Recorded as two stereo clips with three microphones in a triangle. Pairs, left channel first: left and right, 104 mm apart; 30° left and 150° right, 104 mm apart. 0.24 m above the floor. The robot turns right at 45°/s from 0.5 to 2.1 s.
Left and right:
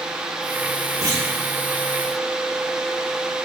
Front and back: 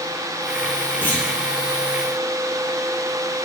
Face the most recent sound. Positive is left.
turn(degrees=5)